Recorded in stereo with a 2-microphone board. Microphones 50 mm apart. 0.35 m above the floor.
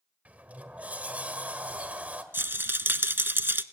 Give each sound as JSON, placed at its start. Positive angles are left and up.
{"t": 0.2, "sound": "a sliding door", "side_deg": -30, "distance_m": 1.7}
{"t": 2.3, "sound": "a rattle", "side_deg": -45, "distance_m": 0.7}